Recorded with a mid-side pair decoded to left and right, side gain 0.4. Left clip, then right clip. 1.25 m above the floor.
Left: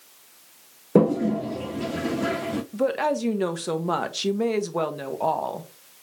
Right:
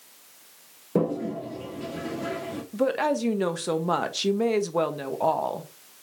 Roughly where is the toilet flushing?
Ahead left.